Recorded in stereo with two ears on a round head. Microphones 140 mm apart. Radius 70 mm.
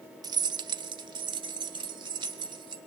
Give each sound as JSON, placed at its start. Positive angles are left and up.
{"t": 0.2, "sound": "keys jangling", "side_deg": -25, "distance_m": 0.6}